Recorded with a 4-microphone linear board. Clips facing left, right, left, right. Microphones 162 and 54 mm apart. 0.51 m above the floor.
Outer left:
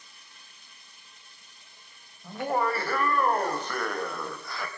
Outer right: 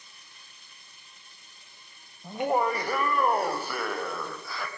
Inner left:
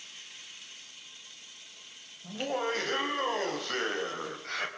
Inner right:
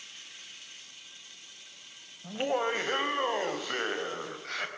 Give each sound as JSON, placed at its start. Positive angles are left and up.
{"t": 2.2, "sound": "laughter", "side_deg": -20, "distance_m": 3.0}